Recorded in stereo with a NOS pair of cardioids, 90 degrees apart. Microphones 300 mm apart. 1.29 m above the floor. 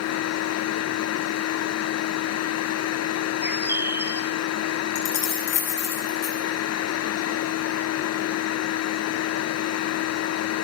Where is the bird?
5° right, 0.8 m.